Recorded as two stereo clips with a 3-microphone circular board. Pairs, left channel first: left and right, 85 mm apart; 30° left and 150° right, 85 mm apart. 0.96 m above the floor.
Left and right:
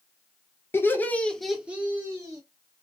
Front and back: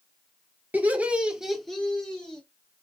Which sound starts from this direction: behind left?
Laughter, at 0.7 s.